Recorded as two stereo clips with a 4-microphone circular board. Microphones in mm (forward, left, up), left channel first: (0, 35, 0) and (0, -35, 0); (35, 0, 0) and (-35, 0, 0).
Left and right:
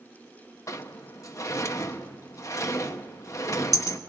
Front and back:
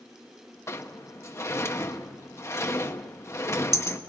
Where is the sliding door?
45° left, 1.1 m.